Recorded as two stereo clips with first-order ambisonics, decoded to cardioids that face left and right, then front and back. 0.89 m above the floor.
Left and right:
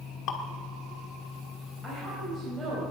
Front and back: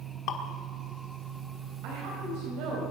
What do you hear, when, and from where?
0.3 s dripping: 45° left, 1.5 m
1.8 s a woman speaking: 165° right, 4.5 m